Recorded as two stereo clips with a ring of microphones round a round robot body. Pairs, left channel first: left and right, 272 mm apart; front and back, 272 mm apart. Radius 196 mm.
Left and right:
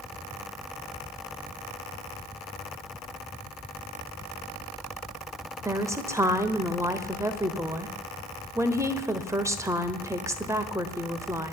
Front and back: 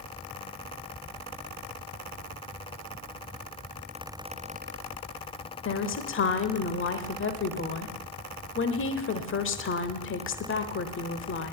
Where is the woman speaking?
15° right, 1.1 m.